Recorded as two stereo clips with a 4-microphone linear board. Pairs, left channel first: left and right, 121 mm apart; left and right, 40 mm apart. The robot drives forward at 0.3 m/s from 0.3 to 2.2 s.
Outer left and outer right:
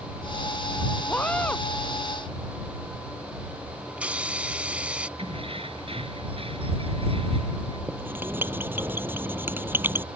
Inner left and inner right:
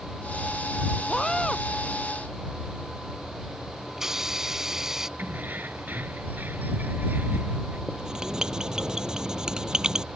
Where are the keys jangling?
50° right (ahead or behind).